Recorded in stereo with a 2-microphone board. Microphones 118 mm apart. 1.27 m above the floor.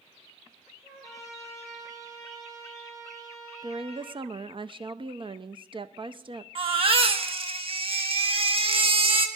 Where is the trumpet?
5° left (ahead or behind), 5.5 m.